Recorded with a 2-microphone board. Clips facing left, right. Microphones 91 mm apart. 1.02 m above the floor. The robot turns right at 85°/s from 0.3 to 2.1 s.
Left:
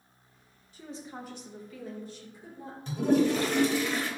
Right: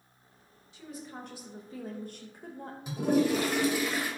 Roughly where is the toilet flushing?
Centre.